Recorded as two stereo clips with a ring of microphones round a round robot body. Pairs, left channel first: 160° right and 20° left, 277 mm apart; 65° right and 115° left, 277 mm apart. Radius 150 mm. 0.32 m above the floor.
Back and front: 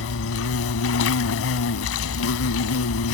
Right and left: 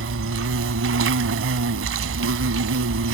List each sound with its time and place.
0.0 s an insect: 160° left